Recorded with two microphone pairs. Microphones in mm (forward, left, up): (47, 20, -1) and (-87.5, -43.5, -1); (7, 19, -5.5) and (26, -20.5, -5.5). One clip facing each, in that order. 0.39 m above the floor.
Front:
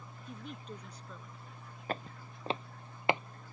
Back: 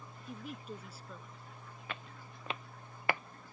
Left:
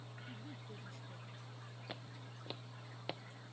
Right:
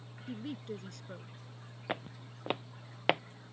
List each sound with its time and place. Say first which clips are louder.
0.3 s a woman speaking: back 1 dB, right 14 dB; 70° right
1.9 s footsteps: front 9 dB, right 13 dB; 25° right; by 3.2 s 45° right